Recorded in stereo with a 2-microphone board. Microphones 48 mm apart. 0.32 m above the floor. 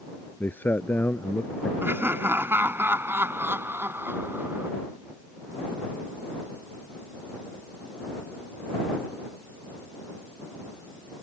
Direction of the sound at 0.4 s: 45° left (ahead or behind).